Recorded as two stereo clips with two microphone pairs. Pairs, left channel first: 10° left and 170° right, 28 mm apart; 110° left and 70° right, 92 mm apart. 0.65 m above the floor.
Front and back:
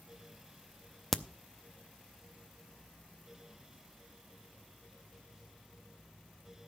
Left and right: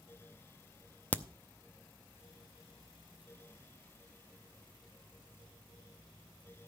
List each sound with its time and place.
1.1 s a crack: 70° left, 0.6 m